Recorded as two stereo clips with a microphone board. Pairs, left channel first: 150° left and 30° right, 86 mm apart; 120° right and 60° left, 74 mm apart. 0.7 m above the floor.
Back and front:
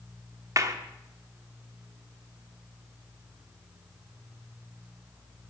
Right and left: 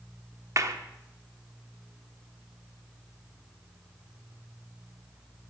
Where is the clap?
20° left, 1.1 m.